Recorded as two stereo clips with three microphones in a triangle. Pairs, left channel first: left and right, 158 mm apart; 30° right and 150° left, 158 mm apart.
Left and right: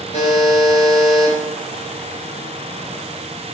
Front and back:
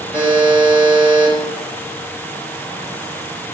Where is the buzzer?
70° left, 0.9 m.